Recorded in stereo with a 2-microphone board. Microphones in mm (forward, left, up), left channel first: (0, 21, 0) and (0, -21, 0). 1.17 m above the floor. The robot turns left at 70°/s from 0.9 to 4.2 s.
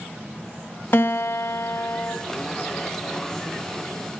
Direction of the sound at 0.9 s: 125° left.